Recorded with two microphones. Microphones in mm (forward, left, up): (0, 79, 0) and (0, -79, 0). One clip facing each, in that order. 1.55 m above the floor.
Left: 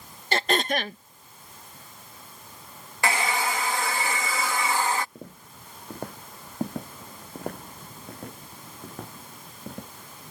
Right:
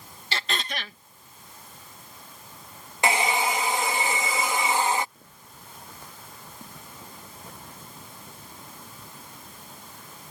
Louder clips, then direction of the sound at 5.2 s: Left 7 dB; 55° left (ahead or behind).